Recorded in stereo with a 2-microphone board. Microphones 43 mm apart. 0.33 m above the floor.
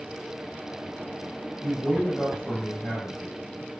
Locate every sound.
1.6 s a man speaking: 20° left (ahead or behind), 1.7 m